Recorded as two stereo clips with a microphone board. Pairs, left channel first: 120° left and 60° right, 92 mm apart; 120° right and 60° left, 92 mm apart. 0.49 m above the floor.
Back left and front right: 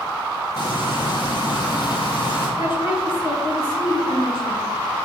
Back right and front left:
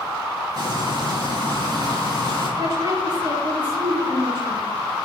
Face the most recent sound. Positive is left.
turn(degrees=100)